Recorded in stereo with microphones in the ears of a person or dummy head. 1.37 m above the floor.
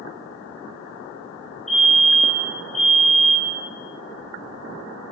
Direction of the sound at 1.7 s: Centre (ahead or behind).